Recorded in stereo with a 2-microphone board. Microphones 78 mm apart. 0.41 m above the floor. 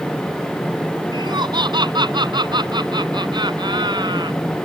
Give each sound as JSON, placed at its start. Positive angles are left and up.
{"t": 1.1, "sound": "laughter", "side_deg": -75}